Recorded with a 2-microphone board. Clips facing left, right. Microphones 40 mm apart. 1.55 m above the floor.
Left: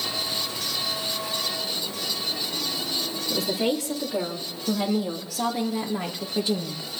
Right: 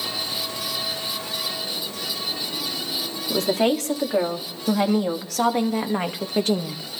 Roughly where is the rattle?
I don't hear a rattle.